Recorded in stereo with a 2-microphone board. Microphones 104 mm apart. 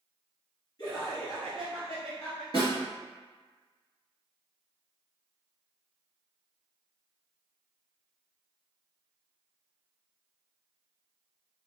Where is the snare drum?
40° left (ahead or behind), 1.8 m.